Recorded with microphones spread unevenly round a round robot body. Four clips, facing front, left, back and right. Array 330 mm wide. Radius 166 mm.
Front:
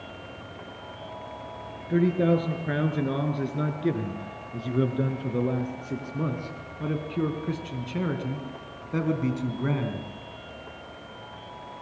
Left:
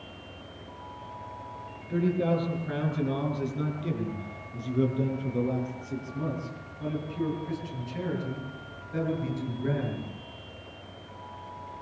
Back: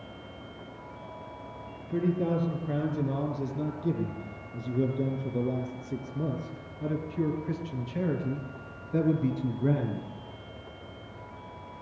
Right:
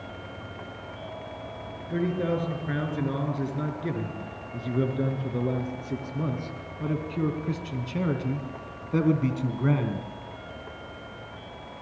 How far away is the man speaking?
About 8.5 m.